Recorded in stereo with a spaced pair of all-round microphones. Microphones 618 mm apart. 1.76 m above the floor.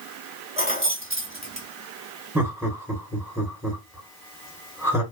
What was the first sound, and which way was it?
Keys jangling, 10° right (ahead or behind).